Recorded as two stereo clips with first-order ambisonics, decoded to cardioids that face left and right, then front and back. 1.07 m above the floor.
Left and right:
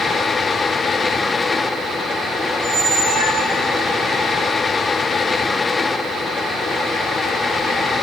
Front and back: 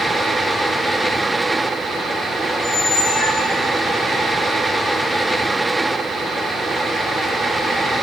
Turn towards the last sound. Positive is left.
turn(degrees=-60)